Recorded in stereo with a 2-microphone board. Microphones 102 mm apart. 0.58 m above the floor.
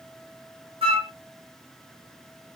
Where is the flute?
75° right (ahead or behind), 1.6 m.